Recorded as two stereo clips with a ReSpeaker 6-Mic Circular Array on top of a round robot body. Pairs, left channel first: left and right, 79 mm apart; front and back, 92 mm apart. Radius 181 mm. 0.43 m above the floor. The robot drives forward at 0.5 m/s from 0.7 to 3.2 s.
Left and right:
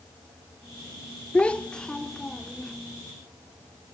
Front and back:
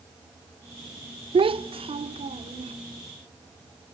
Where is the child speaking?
165° left, 0.5 m; by 2.7 s 175° left, 1.2 m.